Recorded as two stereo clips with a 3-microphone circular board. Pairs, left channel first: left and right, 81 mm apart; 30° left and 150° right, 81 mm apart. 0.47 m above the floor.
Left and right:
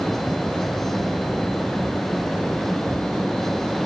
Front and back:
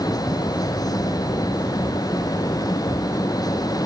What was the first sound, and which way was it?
Only background noise.